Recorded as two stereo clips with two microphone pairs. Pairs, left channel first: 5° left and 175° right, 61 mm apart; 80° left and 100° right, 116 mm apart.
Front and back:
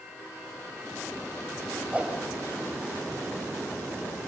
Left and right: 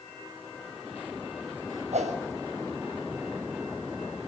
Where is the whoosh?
105° right, 6 m.